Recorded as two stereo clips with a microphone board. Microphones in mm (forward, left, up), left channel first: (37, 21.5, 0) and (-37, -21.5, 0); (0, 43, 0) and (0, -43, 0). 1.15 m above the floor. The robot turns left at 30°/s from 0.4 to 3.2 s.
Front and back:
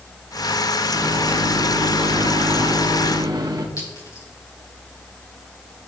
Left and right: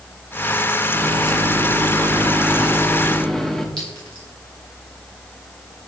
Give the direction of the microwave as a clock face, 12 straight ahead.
4 o'clock.